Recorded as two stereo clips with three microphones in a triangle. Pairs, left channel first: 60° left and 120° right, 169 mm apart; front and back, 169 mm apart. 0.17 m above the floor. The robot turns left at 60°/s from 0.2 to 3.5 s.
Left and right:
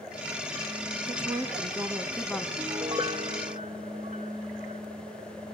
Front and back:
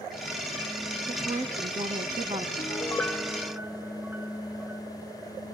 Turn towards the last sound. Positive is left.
turn(degrees=-105)